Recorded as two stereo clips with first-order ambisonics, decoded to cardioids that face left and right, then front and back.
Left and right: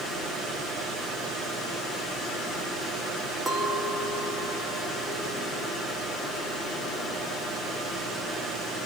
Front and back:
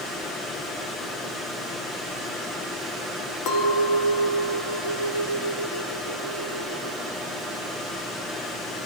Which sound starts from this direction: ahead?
A clink, at 3.5 s.